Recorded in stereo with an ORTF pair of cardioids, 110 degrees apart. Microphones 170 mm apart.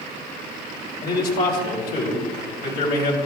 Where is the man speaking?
60° left, 3.5 m.